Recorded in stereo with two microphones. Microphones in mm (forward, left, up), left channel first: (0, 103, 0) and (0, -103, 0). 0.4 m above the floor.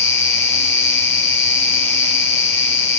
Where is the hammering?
I don't hear hammering.